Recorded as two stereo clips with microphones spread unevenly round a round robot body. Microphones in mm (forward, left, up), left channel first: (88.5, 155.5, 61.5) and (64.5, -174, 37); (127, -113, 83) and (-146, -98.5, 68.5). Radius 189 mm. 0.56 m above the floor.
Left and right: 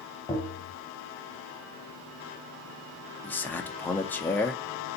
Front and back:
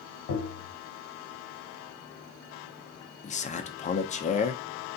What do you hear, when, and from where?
0.3 s tapping: 10° left, 0.9 m
3.2 s a man speaking: straight ahead, 0.6 m